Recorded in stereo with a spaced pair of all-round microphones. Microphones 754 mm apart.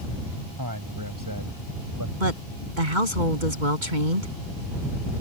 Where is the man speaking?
25° right (ahead or behind).